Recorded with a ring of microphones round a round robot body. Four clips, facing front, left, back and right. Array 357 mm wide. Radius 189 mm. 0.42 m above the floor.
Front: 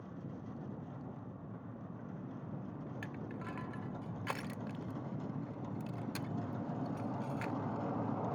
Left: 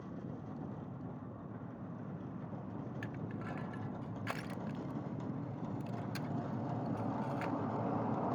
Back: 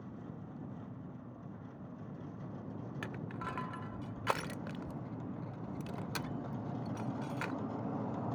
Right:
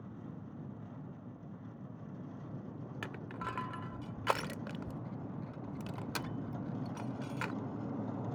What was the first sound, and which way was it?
Crushing, 120° right.